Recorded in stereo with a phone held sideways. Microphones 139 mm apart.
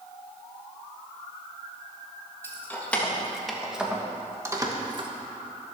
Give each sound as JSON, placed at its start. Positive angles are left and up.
{"t": 2.4, "sound": "keys jangling", "side_deg": 15, "distance_m": 1.9}